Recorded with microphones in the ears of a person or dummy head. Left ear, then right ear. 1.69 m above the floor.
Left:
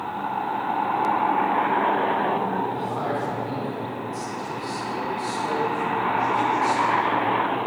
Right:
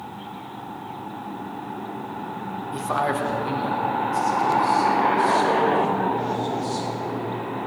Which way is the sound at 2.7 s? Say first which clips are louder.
Right 3 dB; 50° right (ahead or behind).